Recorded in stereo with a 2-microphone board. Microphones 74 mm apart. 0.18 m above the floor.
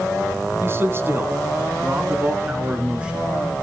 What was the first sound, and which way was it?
A man speaking, 35° right (ahead or behind).